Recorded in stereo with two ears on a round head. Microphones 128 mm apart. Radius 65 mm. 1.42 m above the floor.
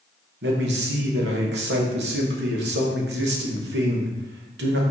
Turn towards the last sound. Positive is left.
turn(degrees=-80)